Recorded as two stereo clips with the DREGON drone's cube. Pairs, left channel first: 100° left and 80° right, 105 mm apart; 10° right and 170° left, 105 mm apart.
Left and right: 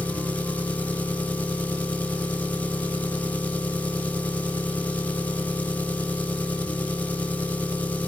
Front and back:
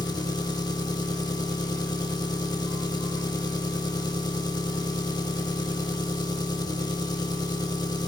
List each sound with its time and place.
0.0 s an engine running: 25° left, 0.9 m